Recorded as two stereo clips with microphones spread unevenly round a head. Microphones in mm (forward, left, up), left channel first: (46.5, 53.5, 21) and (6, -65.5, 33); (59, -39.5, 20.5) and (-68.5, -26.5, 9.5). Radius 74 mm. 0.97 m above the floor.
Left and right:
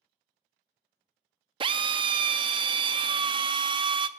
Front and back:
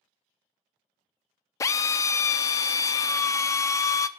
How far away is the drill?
About 0.5 m.